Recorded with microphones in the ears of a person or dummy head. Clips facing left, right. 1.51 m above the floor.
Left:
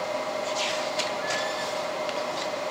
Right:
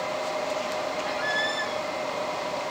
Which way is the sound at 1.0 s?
25° right (ahead or behind).